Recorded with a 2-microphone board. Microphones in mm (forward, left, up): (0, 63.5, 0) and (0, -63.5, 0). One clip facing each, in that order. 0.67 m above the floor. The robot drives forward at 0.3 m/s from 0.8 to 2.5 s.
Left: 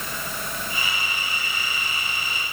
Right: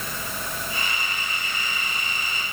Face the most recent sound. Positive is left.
No sound to turn to.